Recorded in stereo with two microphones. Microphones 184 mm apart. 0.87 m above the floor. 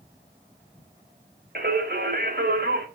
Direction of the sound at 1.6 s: 65° right (ahead or behind).